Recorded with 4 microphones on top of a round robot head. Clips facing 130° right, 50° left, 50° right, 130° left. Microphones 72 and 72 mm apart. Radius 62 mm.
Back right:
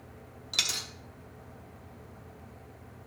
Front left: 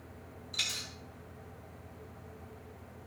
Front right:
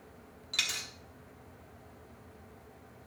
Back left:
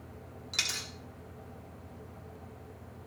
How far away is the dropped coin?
About 1.0 m.